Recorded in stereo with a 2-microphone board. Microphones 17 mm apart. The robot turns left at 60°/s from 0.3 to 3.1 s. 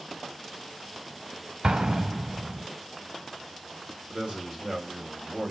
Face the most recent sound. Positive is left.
turn(degrees=-45)  # may be behind; listen again after turning